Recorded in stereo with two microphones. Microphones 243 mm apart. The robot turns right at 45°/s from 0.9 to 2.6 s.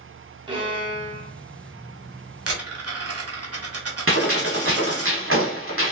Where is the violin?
20° right (ahead or behind), 1.1 m; by 1.3 s 40° right (ahead or behind), 1.1 m.